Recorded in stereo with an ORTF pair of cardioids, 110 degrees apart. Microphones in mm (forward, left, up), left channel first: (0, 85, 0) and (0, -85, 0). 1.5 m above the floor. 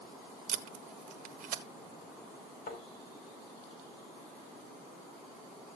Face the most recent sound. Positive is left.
turn(degrees=60)